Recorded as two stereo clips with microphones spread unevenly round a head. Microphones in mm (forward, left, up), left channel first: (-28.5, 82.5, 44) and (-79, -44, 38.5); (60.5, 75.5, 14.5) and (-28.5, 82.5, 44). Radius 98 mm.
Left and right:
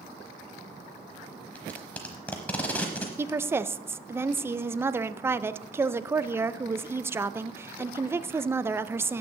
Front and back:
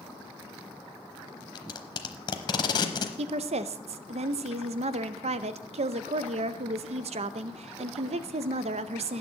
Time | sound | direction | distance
1.6 | tape being pulled | 5° left | 0.9 m
3.2 | a woman speaking | 175° left | 0.5 m